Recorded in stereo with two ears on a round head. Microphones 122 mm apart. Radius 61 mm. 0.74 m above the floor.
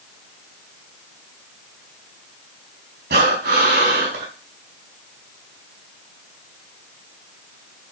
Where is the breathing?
85° right, 5 m.